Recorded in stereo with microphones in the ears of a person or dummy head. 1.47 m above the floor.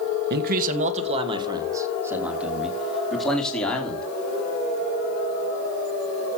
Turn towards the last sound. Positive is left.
turn(degrees=5)  # may be behind; listen again after turning